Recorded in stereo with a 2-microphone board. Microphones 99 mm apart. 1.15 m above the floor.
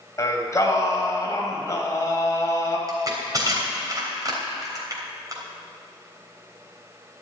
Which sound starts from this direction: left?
Singing, at 0.2 s.